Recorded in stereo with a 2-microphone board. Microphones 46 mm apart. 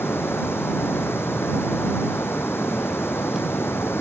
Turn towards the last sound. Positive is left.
turn(degrees=55)  # may be behind; listen again after turning